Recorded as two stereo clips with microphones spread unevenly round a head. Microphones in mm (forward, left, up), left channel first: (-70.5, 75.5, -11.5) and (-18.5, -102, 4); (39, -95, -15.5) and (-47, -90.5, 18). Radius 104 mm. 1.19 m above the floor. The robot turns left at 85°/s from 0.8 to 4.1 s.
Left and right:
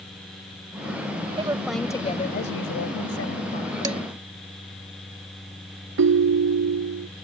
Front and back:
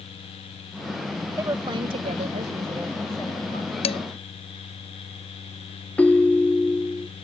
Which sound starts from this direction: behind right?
A woman speaking, at 1.4 s.